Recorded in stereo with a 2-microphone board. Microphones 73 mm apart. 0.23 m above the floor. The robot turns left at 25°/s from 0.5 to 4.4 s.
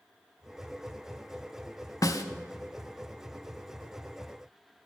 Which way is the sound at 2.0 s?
50° left (ahead or behind).